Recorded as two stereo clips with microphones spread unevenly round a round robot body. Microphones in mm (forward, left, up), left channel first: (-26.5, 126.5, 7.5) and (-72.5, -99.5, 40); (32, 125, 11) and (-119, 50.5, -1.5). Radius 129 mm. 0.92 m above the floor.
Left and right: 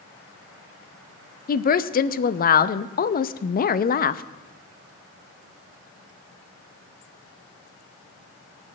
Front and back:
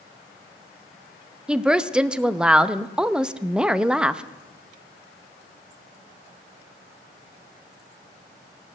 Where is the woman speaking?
125° left, 0.7 m.